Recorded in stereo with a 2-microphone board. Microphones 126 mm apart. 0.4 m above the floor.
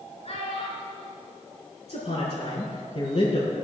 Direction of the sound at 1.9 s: 50° left (ahead or behind).